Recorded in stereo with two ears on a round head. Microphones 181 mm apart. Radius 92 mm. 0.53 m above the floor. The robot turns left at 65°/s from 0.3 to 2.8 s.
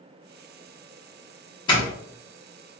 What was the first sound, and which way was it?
A doorbell, 25° left (ahead or behind).